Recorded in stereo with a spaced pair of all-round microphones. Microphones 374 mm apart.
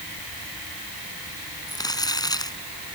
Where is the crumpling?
10° left (ahead or behind).